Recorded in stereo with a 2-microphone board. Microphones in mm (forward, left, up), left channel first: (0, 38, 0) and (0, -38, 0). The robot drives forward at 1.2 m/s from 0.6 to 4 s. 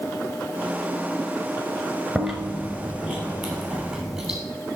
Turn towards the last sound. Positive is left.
turn(degrees=0)  # may be behind; listen again after turning